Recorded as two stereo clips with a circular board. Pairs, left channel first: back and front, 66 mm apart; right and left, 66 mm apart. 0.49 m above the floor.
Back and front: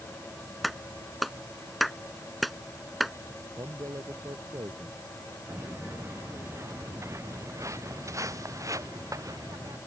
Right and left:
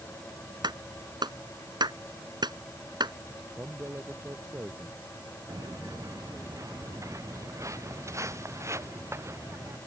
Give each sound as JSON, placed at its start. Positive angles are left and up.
{"t": 0.6, "sound": "a clap", "azimuth_deg": 90}
{"t": 3.6, "sound": "a man speaking", "azimuth_deg": 30}
{"t": 5.5, "sound": "footsteps", "azimuth_deg": 55}